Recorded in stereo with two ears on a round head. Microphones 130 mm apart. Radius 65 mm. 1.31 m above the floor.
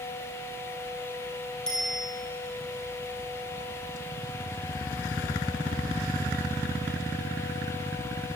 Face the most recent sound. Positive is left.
turn(degrees=5)  # may be behind; listen again after turning